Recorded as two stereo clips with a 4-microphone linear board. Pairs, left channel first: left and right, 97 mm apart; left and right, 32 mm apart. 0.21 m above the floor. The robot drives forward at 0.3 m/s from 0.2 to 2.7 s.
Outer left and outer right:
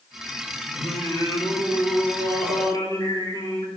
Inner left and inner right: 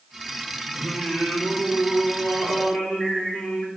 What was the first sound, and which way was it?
Singing, 55° left (ahead or behind).